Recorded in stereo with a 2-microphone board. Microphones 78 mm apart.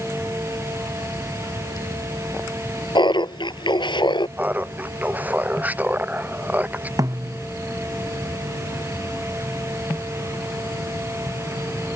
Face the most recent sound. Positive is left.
turn(degrees=-45)  # may be behind; listen again after turning